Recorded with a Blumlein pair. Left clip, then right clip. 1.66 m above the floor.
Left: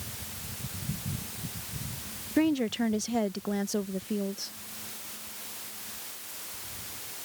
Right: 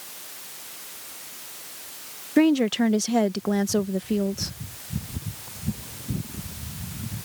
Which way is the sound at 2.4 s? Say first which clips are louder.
Right 7 dB; 20° right.